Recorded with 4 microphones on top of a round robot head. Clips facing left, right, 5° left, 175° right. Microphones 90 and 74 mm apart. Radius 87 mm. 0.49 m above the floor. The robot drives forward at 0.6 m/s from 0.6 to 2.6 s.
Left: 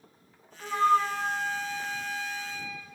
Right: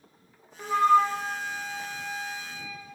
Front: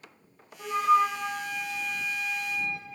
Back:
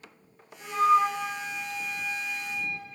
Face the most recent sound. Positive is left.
turn(degrees=-150)